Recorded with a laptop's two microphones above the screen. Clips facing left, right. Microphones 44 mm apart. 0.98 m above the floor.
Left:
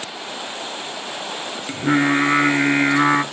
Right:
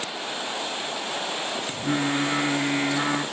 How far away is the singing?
About 1.1 m.